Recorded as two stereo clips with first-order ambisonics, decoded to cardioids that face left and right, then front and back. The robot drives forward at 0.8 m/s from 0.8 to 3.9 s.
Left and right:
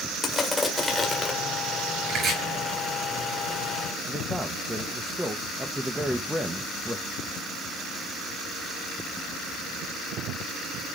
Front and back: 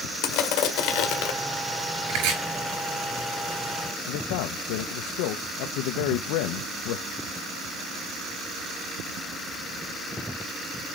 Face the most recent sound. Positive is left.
turn(degrees=0)